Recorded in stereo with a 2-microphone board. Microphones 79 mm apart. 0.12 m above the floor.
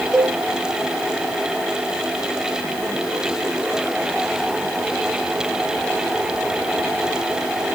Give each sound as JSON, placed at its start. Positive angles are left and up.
{"t": 0.1, "sound": "a cowbell", "side_deg": 0, "distance_m": 2.5}